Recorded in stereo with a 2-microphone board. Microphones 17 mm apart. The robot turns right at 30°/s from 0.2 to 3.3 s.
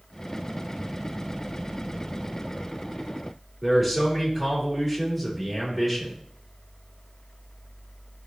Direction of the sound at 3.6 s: 5° right (ahead or behind).